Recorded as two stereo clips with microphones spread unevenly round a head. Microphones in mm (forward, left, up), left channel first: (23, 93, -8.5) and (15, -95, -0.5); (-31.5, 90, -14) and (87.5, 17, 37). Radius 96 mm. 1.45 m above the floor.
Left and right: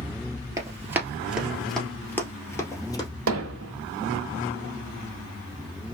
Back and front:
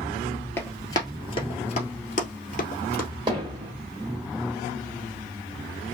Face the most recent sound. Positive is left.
turn(degrees=-90)